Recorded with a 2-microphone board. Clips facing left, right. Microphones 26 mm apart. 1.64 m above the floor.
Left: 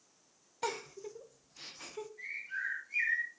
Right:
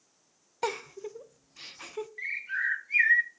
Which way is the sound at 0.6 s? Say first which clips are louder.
Right 5 dB; 20° right (ahead or behind).